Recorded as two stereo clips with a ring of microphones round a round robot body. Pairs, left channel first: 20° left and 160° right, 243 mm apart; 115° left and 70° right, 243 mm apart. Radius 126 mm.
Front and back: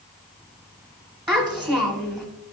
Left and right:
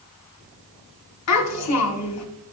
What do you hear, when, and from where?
1.3 s a child speaking: 125° left, 1.4 m